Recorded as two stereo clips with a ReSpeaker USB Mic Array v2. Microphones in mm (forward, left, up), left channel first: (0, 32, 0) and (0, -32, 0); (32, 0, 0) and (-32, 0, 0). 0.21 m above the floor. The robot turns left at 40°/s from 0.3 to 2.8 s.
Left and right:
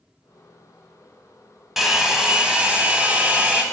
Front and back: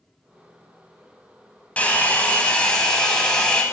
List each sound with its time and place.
1.8 s a hair dryer: 10° right, 0.8 m; by 3.6 s 50° right, 0.8 m